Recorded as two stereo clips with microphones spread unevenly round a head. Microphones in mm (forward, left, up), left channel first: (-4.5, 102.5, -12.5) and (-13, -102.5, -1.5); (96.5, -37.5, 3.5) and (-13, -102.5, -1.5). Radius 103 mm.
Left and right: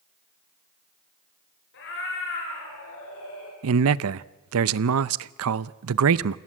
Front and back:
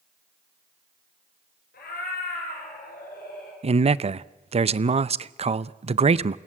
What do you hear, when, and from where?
1.7 s a cat meowing: 50° left, 6 m; by 3.5 s 65° left, 5.5 m
3.6 s a man speaking: 110° right, 0.6 m